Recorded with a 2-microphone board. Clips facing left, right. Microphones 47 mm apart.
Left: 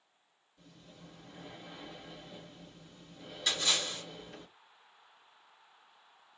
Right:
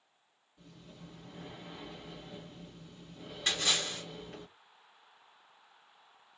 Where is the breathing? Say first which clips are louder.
Right 2 dB; 25° right (ahead or behind), 1.9 m.